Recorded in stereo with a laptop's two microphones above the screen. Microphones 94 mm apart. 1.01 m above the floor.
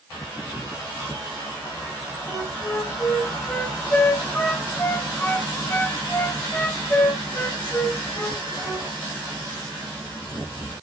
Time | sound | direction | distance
2.3 | a flute | 25° left (ahead or behind) | 1.5 m